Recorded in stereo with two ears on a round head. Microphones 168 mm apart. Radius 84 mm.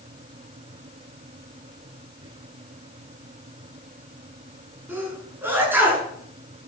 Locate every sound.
2.2 s whispering: 30° right (ahead or behind), 8.5 m
4.9 s a sneeze: 10° right (ahead or behind), 7 m